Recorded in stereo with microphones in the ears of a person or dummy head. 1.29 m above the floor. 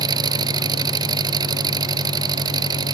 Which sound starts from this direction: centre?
An engine running, at 0.0 s.